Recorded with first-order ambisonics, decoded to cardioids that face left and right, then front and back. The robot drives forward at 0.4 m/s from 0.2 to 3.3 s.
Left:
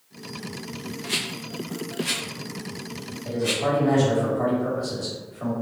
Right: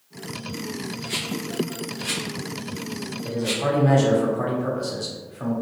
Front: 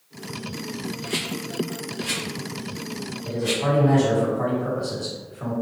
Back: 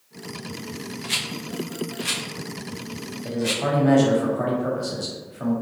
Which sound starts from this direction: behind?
A rattle, at 1.0 s.